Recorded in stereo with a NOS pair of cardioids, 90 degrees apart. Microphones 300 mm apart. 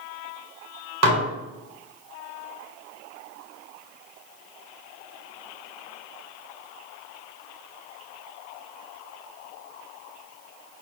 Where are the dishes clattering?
60° right, 1.1 m.